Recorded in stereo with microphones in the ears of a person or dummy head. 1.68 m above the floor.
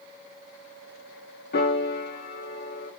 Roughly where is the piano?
Left.